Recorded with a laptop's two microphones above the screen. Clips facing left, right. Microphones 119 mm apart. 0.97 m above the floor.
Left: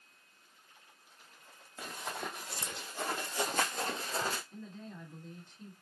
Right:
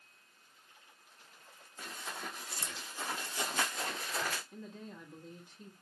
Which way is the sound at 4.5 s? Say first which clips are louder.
Even; 15° right (ahead or behind).